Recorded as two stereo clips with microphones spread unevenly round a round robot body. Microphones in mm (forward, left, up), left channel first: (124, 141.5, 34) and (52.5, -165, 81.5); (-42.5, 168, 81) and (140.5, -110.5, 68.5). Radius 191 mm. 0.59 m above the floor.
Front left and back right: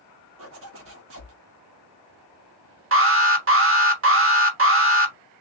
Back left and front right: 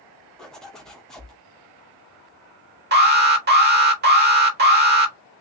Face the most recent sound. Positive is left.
turn(degrees=-80)